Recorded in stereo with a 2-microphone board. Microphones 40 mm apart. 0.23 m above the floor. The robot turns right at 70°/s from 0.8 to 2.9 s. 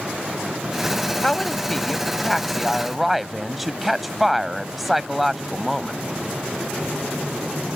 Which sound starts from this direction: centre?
A woman speaking, at 1.2 s.